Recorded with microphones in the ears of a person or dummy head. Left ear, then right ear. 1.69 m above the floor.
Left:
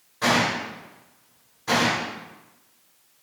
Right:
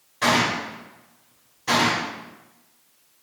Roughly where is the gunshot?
Centre.